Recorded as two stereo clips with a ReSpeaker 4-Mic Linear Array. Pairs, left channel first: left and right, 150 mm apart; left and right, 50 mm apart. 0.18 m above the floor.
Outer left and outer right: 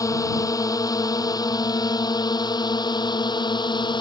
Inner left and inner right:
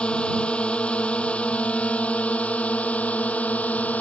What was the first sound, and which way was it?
A drone, 20° left (ahead or behind).